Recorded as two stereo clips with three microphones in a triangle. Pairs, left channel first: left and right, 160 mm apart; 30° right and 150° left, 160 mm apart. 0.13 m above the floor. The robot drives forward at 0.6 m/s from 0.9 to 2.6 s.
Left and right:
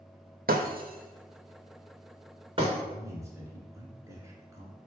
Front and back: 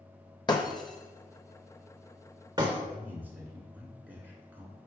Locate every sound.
0.5 s breaking glass: 95° right, 0.7 m; by 2.8 s 145° right, 1.2 m
2.9 s a man speaking: 140° right, 1.4 m